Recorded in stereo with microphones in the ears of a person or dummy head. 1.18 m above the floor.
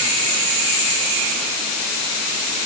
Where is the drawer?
I don't hear a drawer.